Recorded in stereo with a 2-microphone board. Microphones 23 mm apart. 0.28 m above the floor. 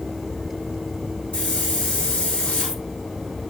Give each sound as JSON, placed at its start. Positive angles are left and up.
{"t": 1.3, "sound": "a hiss", "side_deg": 60, "distance_m": 3.0}